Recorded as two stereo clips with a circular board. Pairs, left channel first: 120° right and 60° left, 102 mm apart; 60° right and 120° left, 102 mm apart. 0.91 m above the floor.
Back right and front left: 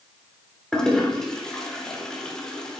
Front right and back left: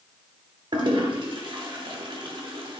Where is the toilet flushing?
155° left, 1.1 m.